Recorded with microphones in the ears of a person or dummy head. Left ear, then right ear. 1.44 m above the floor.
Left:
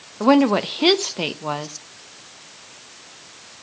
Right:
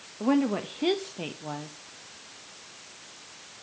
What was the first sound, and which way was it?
A woman speaking, 40° left (ahead or behind).